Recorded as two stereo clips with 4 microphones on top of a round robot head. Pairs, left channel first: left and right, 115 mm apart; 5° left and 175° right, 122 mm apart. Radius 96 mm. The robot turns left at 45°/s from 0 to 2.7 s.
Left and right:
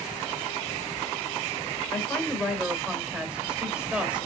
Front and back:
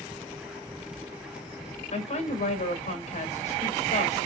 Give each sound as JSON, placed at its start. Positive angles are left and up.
{"t": 1.9, "sound": "a woman speaking", "azimuth_deg": 25, "distance_m": 2.5}